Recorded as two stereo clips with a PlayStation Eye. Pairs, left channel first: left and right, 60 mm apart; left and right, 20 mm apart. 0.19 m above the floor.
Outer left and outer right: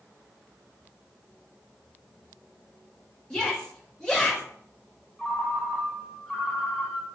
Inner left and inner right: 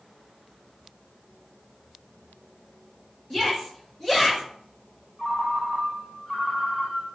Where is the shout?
10° left (ahead or behind), 2 m.